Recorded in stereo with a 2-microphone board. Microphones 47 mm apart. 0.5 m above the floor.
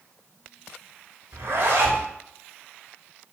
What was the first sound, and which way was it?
A zipper, 60° right (ahead or behind).